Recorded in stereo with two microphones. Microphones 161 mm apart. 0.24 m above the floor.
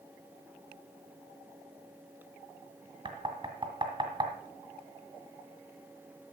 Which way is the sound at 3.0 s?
30° right (ahead or behind).